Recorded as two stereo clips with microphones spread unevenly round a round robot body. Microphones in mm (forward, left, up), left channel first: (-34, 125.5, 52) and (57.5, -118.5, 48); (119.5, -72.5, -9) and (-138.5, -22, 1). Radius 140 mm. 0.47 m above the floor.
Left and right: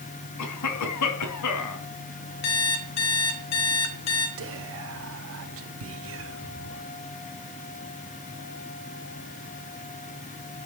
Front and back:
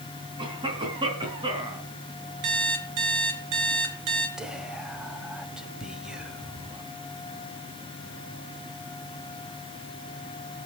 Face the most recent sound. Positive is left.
turn(degrees=-105)